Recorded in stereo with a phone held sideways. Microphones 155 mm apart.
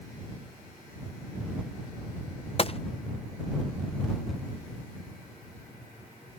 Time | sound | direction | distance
2.6 | a gunshot | 40° left (ahead or behind) | ?